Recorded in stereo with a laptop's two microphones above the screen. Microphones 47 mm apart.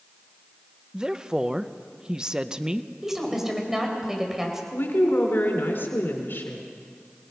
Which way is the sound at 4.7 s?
55° left (ahead or behind).